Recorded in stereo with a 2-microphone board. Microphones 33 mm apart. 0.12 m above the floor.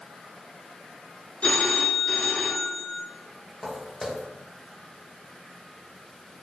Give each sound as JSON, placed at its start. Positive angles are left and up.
{"t": 1.4, "sound": "a phone ringing", "side_deg": 35, "distance_m": 1.0}
{"t": 3.6, "sound": "footsteps", "side_deg": 5, "distance_m": 1.9}